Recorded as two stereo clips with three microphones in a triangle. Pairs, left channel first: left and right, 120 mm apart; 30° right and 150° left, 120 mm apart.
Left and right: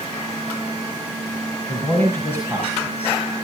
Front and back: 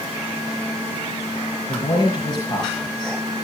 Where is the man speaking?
20° left, 4 m.